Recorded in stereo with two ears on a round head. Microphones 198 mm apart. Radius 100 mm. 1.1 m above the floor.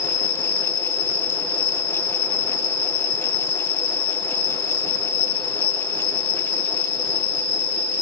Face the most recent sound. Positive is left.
turn(degrees=50)  # may be behind; listen again after turning